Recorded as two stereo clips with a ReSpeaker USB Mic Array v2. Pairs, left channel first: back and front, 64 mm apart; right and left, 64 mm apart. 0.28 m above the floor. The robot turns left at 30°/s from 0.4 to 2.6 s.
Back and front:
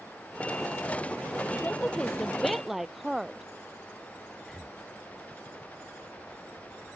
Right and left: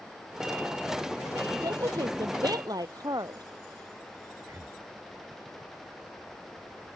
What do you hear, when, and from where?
1.5 s a woman speaking: 115° left; by 3.4 s 85° left
4.4 s breathing: 85° left